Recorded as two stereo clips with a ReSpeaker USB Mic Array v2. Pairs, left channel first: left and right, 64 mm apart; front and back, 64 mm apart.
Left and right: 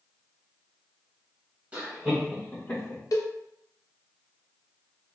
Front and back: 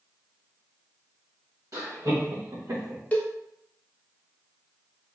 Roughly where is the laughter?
Behind right.